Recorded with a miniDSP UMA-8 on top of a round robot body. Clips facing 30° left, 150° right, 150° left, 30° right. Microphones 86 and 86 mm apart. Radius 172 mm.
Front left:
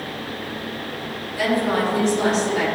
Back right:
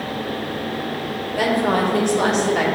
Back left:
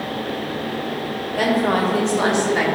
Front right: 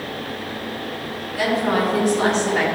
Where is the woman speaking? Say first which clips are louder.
Back right 2 dB, back left 1 dB; 175° right, 2 m; by 2.6 s 130° right, 2.5 m.